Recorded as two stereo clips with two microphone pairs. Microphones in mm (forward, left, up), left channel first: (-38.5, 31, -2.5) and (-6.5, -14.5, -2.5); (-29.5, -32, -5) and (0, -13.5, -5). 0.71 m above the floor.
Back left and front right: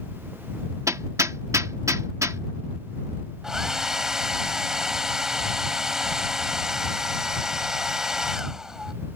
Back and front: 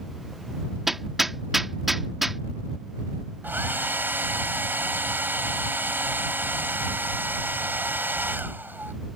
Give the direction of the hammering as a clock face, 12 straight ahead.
2 o'clock.